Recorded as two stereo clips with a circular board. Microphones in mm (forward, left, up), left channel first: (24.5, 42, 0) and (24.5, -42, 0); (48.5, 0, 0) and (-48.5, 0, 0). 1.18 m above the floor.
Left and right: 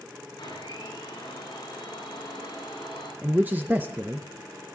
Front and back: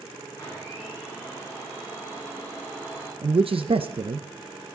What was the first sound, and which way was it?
A blender, 60° left.